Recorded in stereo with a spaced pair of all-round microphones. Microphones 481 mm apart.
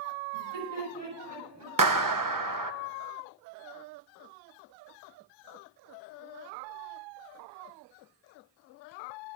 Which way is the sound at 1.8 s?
45° right (ahead or behind).